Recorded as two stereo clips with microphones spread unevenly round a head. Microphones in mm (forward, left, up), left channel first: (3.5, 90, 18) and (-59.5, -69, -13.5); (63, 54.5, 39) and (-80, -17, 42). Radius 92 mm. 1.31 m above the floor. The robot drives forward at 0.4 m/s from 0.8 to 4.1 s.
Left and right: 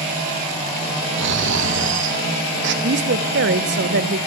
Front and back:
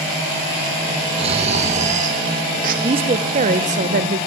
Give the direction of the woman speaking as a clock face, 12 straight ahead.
3 o'clock.